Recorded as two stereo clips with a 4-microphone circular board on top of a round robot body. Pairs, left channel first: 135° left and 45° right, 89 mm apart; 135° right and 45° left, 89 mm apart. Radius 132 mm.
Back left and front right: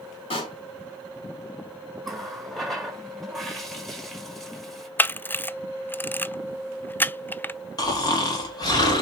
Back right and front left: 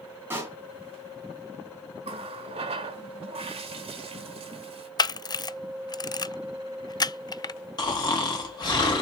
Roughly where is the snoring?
Behind.